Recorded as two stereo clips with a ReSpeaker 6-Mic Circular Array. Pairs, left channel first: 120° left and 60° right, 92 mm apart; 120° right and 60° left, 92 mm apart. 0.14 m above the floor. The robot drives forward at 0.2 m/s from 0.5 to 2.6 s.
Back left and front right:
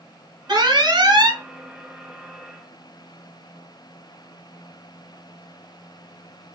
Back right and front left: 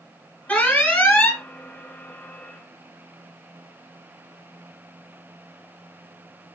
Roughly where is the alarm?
Ahead right.